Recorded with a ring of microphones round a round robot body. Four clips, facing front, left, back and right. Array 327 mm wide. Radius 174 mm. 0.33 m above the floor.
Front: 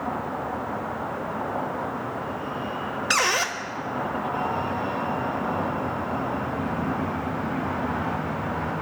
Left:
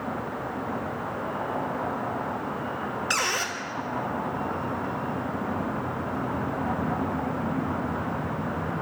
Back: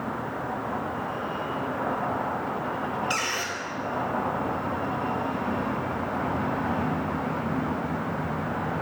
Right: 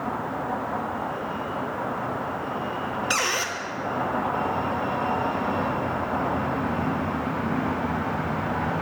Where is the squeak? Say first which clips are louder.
Right 1 dB, front 5 dB; 5° right, 1.2 m.